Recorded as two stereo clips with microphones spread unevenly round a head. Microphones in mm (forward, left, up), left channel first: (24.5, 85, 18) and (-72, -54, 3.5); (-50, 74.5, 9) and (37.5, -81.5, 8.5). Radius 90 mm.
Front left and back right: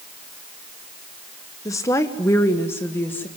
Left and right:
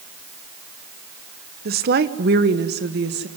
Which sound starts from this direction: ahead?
A woman speaking, at 1.6 s.